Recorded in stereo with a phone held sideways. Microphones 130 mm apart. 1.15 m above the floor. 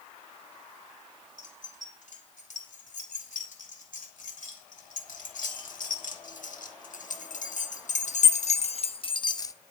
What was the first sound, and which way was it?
Keys jangling, 80° left.